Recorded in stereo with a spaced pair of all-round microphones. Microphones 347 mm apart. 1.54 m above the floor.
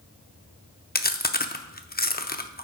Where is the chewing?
25° left (ahead or behind), 0.5 m.